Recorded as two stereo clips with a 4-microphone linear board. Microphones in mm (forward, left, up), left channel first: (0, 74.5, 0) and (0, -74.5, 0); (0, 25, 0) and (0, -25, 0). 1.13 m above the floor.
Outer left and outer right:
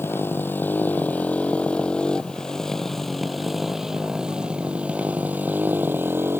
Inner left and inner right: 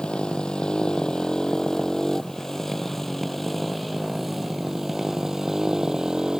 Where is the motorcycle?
15° left (ahead or behind); by 6.4 s 15° right (ahead or behind).